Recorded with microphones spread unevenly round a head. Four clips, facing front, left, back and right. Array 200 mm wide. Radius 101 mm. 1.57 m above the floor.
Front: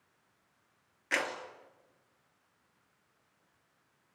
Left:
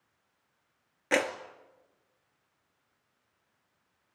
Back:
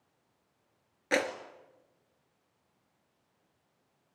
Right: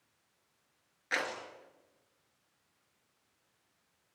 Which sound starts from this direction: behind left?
A clap, at 1.1 s.